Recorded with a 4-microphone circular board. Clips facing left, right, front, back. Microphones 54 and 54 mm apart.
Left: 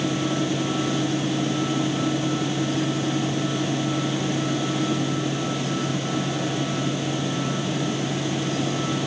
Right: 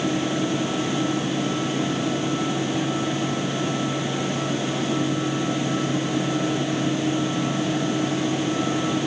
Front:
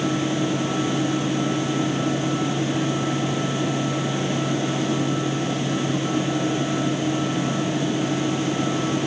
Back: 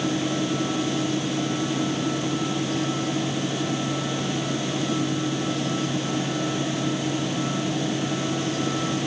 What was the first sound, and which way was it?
Only background noise.